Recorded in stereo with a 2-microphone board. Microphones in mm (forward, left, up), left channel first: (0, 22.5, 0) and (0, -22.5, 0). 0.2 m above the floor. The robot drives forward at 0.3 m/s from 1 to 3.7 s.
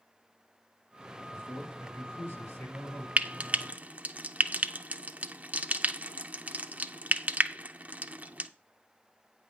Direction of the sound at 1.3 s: 70° left (ahead or behind).